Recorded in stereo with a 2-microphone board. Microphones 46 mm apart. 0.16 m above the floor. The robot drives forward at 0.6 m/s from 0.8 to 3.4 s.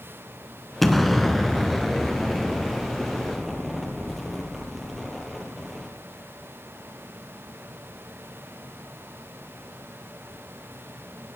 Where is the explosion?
5° left (ahead or behind), 0.9 m; by 5.9 s centre (ahead or behind), 2.5 m.